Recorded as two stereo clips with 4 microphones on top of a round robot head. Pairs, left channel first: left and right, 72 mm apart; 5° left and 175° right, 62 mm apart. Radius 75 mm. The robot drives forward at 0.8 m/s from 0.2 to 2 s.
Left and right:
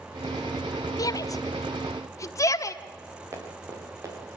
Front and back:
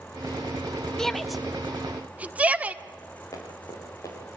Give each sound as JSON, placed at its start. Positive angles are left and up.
{"t": 1.0, "sound": "a shout", "azimuth_deg": 85, "distance_m": 1.4}
{"t": 3.3, "sound": "running footsteps", "azimuth_deg": -40, "distance_m": 7.0}